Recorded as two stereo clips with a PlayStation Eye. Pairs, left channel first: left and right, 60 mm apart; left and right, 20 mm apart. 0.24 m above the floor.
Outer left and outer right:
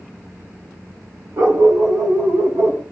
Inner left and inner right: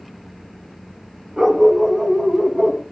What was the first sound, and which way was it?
A dog barking, 55° right (ahead or behind).